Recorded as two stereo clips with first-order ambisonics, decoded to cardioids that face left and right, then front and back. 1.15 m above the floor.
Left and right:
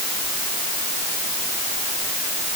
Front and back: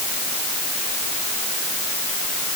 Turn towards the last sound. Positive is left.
No sound to turn to.